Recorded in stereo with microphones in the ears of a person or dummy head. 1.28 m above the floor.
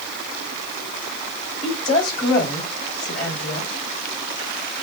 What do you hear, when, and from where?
1.6 s a woman speaking: 50° left (ahead or behind), 3 m